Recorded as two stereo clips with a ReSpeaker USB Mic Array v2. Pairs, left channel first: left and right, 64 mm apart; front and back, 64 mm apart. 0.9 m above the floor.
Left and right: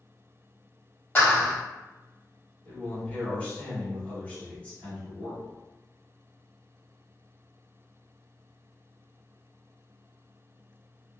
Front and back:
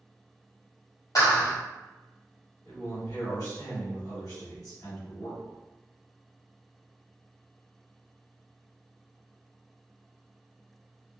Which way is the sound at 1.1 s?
30° left.